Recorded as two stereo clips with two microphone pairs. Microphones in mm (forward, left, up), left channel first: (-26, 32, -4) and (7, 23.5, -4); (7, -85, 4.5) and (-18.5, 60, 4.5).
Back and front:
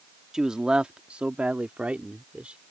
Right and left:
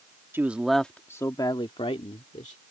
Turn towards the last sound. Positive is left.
turn(degrees=-65)